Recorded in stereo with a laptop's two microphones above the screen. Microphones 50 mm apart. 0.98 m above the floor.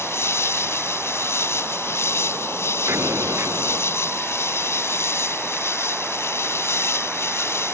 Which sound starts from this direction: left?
An insect, at 0.0 s.